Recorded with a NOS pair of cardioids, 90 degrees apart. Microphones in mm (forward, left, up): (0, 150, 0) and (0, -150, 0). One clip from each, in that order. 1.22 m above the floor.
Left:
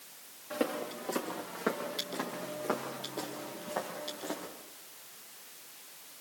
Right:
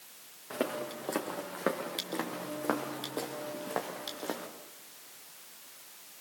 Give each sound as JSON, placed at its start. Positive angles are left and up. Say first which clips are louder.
{"t": 0.5, "sound": "footsteps", "louder": "even", "azimuth_deg": -25, "distance_m": 5.5}